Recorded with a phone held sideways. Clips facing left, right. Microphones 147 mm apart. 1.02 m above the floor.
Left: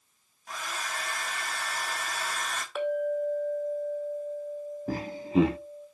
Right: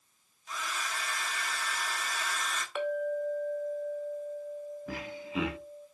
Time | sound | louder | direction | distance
0.5 | a hair dryer | left 1 dB | 60° left (ahead or behind) | 2 m
2.8 | a clink | left 3 dB | 5° left (ahead or behind) | 2 m
4.9 | laughter | left 13 dB | 40° left (ahead or behind) | 0.9 m